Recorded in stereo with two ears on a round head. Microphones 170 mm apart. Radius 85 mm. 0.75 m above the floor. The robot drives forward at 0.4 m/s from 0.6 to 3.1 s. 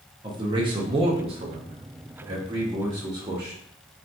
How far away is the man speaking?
About 0.6 m.